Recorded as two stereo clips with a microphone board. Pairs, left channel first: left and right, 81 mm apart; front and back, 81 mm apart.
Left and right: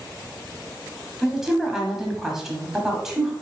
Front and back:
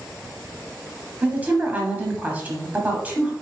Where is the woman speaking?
165° right, 1.0 m.